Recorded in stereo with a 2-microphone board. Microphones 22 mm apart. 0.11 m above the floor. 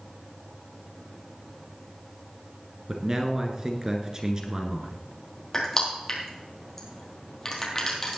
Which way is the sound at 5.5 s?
20° left (ahead or behind).